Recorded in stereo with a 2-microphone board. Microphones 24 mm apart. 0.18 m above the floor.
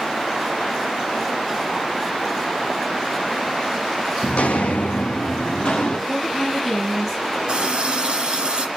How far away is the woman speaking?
About 1.3 m.